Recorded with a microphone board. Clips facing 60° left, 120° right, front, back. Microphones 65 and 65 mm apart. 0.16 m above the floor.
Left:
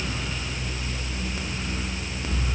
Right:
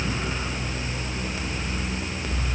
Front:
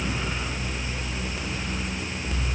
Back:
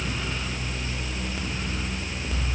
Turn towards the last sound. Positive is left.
No sound to turn to.